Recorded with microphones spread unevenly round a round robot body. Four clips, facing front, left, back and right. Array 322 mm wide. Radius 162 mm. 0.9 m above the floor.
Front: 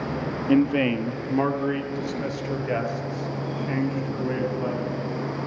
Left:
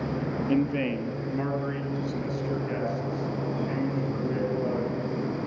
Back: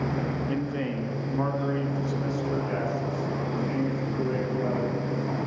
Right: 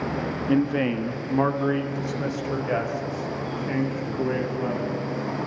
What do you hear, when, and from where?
0.5 s a man speaking: 25° right, 0.9 m; by 5.4 s 55° right, 7.5 m